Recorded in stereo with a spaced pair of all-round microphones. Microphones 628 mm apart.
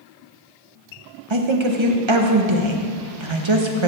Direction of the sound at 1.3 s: 50° right (ahead or behind).